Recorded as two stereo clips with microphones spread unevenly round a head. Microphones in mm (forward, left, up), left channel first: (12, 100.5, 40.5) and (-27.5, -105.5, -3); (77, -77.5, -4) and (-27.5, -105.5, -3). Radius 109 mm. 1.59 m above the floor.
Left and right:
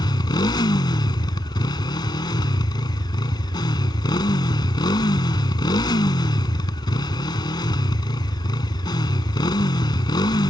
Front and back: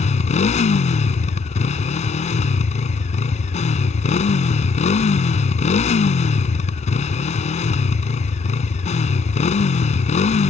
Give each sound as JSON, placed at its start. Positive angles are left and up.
{"t": 0.0, "sound": "a motorcycle", "azimuth_deg": 10}